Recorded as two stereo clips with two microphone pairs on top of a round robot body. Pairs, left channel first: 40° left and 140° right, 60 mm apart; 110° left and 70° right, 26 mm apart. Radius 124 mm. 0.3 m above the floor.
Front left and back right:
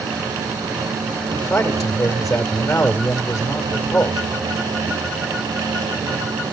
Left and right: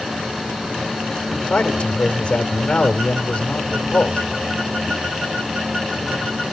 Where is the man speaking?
70° left, 2.5 m.